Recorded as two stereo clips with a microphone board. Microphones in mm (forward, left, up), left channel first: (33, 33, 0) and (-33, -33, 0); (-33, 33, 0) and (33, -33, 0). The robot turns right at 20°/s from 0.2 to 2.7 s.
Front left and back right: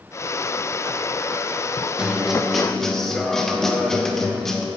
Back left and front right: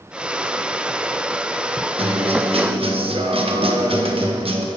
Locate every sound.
2.0 s a guitar: 55° right, 1.1 m; by 4.7 s 40° right, 1.1 m